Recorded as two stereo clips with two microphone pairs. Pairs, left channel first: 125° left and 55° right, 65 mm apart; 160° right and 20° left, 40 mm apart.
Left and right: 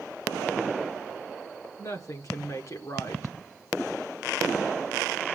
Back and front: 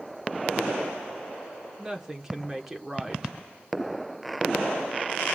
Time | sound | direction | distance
1.8 | a woman speaking | 100° left | 1.6 m